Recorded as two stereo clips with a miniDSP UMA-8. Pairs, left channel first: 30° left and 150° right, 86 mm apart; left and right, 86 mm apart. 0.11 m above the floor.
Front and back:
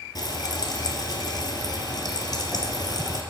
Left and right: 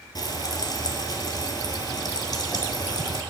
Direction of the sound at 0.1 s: 60° left.